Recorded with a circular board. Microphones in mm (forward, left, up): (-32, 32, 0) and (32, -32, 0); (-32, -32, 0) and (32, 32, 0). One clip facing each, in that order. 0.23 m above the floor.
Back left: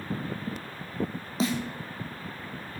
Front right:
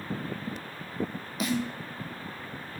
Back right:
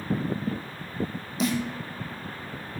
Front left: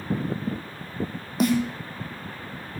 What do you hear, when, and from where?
1.4 s a snare drum: 75° left, 1.6 m